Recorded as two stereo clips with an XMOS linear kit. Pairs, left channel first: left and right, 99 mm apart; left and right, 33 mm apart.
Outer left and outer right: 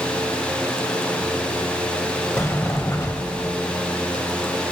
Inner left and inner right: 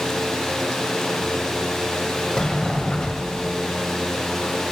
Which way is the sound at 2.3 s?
25° left (ahead or behind).